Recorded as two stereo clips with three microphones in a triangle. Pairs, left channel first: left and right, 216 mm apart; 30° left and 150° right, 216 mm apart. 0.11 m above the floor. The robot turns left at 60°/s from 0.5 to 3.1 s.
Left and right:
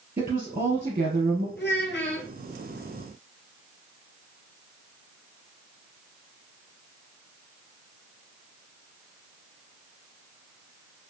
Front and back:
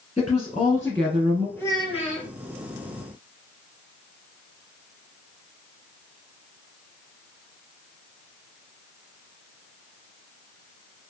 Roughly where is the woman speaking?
Ahead right.